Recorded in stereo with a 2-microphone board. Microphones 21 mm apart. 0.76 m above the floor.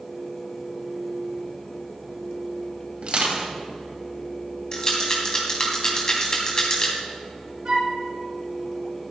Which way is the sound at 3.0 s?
60° right (ahead or behind).